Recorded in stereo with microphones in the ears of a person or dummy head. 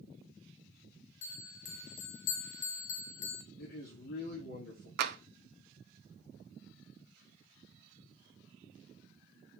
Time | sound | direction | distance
1.2 | a bell | 60° left (ahead or behind) | 0.8 m
3.6 | a man speaking | 50° left (ahead or behind) | 2 m
5.0 | tapping | 55° right (ahead or behind) | 0.8 m